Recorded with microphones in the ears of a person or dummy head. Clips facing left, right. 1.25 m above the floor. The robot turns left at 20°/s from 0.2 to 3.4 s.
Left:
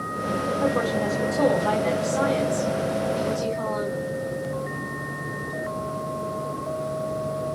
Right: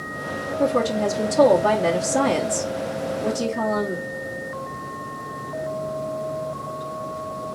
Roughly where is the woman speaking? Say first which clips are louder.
Right 5 dB; ahead right.